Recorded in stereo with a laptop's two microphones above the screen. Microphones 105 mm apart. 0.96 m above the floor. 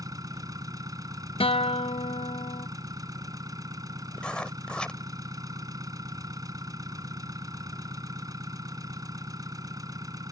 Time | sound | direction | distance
0.0 | an engine running | 35° right (ahead or behind) | ?
1.4 | a guitar | 60° left (ahead or behind) | ?
4.2 | writing | 10° left (ahead or behind) | ?